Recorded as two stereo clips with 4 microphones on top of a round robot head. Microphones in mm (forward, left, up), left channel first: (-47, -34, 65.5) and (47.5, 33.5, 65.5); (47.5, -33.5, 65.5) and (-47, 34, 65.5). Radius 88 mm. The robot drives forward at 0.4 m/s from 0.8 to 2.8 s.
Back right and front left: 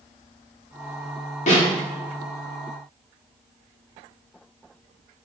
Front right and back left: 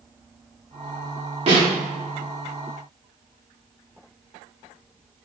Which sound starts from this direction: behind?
A snare drum, at 1.5 s.